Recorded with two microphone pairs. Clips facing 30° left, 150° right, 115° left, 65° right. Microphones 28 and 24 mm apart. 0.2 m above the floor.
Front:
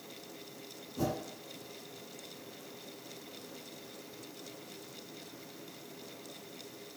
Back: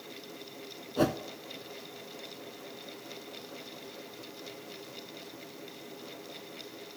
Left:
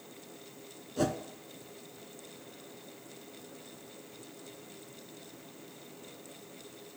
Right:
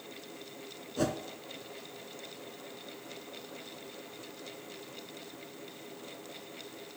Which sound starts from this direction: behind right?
A whoosh, at 1.0 s.